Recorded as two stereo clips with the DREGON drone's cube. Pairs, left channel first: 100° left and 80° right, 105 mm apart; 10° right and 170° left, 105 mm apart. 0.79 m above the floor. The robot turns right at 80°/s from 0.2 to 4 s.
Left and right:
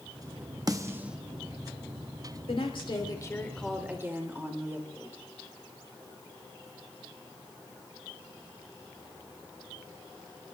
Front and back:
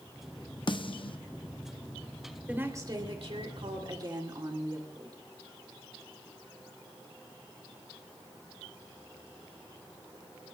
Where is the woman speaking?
95° left, 2.5 m; by 5.2 s 145° right, 2.5 m.